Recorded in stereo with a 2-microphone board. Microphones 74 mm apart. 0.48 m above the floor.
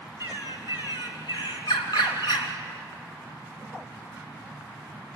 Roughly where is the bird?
Left.